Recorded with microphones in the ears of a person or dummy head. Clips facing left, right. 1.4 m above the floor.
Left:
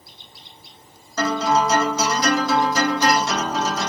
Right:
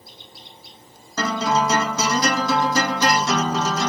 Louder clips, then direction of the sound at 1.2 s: Left 2 dB; 75° right (ahead or behind).